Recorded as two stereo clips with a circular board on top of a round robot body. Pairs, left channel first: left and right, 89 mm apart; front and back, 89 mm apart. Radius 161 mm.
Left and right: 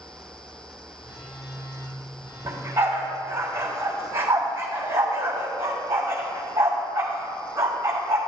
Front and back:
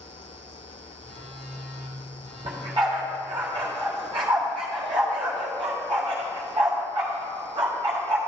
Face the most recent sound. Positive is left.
turn(degrees=-155)